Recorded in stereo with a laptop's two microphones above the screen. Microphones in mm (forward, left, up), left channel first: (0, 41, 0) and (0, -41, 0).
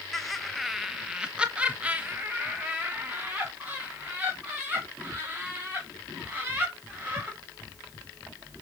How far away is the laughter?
About 1.0 m.